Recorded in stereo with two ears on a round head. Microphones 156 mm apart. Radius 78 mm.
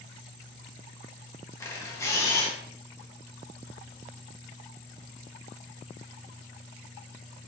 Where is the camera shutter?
15° left (ahead or behind), 0.8 m.